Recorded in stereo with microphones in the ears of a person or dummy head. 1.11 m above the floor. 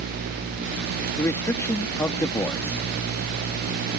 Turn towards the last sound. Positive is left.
turn(degrees=15)  # may be behind; listen again after turning